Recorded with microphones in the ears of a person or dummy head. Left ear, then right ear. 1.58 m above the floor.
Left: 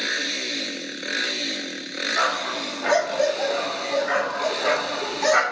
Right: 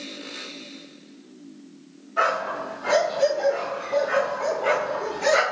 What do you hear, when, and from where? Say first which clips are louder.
2.2 s a dog barking: right 2 dB; 25° left (ahead or behind), 1.0 m